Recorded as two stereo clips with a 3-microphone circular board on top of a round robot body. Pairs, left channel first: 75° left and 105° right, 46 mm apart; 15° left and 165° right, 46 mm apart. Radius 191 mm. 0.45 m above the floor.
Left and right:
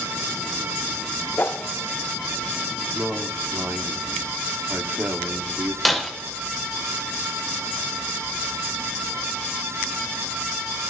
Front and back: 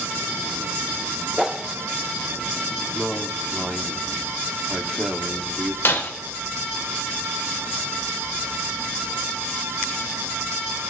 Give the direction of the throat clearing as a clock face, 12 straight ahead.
I don't hear throat clearing.